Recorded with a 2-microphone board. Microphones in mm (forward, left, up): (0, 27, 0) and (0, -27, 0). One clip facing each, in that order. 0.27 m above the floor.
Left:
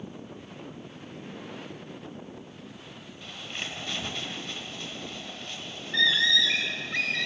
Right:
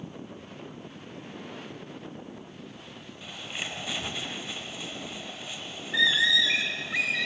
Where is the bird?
10° right (ahead or behind), 0.6 m.